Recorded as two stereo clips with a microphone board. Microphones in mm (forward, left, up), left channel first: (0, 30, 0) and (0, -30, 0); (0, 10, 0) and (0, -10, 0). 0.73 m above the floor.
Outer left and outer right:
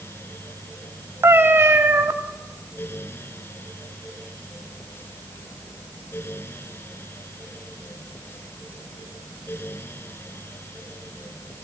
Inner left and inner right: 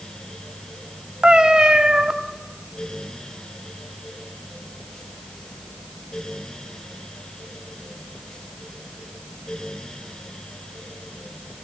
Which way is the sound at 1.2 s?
35° right (ahead or behind).